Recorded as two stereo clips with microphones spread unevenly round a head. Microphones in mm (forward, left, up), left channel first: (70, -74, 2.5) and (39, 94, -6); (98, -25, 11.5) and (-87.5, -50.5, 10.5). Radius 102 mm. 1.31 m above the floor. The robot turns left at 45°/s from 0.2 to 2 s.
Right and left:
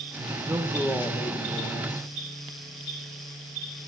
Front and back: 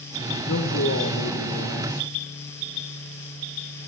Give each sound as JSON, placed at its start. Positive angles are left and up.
{"t": 0.5, "sound": "a man speaking", "azimuth_deg": 30, "distance_m": 1.7}